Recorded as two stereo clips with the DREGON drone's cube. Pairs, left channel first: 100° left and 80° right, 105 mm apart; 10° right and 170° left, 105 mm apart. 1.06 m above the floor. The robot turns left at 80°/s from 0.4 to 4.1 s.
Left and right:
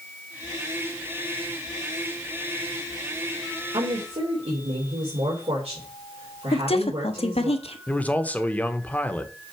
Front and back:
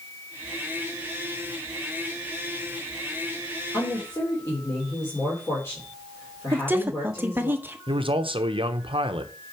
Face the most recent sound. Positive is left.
turn(degrees=170)